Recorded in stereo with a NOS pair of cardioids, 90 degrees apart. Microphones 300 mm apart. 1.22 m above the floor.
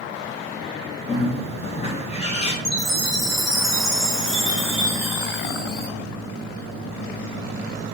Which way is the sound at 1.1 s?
20° left.